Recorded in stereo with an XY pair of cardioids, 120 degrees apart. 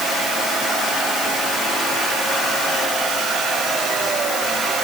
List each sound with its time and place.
Only background noise.